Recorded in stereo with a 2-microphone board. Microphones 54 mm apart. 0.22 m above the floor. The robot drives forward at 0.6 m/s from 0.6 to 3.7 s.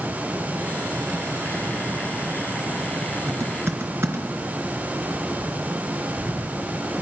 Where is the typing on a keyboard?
50° right (ahead or behind), 2.5 m.